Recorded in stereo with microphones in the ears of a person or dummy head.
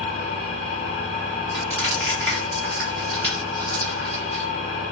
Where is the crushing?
15° left (ahead or behind), 1.2 m.